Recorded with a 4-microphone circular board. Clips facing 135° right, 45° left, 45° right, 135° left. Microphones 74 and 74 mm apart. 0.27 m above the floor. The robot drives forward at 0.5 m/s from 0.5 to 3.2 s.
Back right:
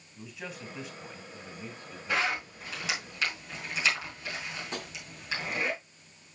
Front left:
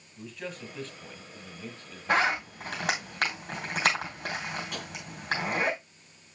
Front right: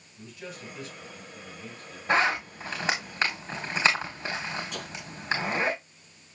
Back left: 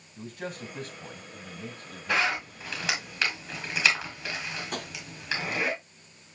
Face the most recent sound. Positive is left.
turn(degrees=170)